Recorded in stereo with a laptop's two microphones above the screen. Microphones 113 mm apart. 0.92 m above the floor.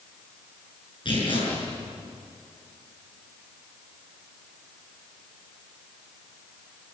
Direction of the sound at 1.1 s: 50° left (ahead or behind).